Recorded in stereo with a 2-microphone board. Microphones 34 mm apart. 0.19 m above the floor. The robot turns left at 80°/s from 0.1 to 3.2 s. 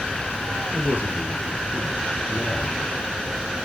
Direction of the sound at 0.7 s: 95° right.